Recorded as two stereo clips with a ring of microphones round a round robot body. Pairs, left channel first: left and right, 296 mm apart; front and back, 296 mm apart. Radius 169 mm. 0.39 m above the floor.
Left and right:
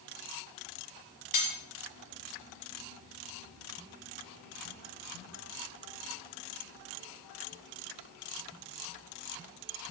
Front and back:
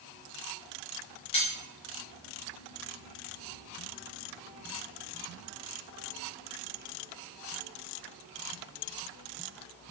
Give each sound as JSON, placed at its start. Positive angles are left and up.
{"t": 1.3, "sound": "cutlery clinking", "azimuth_deg": 70, "distance_m": 1.9}